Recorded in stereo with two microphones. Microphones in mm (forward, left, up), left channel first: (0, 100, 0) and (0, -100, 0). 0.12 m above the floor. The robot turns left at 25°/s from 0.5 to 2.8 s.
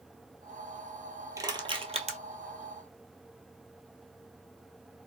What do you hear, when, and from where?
1.4 s crushing: 20° right (ahead or behind), 0.8 m; by 2.2 s 35° right (ahead or behind), 0.8 m